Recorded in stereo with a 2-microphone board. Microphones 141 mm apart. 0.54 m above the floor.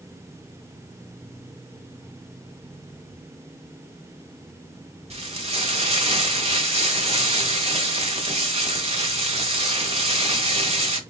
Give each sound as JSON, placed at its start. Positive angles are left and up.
{"t": 5.1, "sound": "frying", "side_deg": -45, "distance_m": 1.2}